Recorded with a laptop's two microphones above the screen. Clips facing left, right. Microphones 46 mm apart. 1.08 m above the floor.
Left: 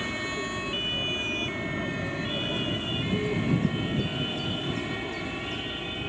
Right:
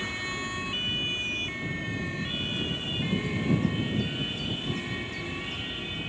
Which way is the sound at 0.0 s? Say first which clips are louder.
Left 2 dB; 50° left (ahead or behind).